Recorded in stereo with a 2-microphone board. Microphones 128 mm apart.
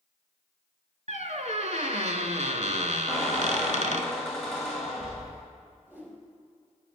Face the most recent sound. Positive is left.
turn(degrees=-15)  # may be behind; listen again after turning